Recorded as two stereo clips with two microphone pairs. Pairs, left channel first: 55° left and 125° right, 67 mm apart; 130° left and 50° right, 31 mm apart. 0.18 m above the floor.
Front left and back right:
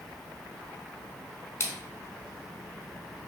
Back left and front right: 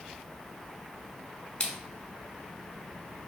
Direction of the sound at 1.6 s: 85° left.